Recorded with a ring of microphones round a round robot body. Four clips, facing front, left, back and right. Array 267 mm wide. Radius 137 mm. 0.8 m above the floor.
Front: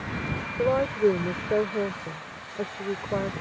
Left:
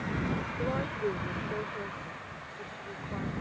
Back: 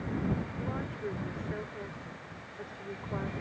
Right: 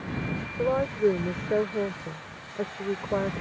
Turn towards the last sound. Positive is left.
turn(degrees=-55)